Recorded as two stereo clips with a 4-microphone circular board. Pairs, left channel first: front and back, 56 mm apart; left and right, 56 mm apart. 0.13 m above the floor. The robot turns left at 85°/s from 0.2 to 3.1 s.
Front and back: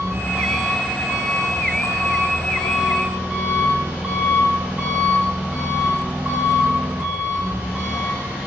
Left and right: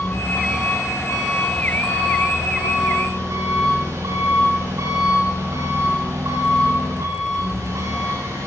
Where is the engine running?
130° left, 8 m; by 8.5 s 120° right, 8 m.